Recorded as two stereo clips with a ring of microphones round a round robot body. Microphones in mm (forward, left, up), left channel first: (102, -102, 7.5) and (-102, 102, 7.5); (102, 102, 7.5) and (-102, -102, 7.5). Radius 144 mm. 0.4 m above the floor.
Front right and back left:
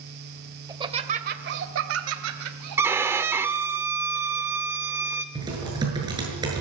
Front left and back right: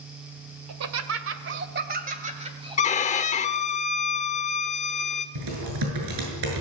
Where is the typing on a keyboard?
150° right, 7.5 m.